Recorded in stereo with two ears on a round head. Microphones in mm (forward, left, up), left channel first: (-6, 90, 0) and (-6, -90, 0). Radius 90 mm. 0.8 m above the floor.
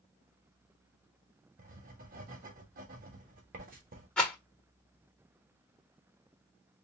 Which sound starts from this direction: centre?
A rattle, at 4.2 s.